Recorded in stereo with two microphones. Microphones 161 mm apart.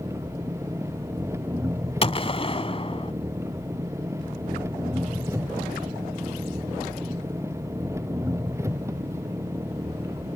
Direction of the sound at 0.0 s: 20° right (ahead or behind).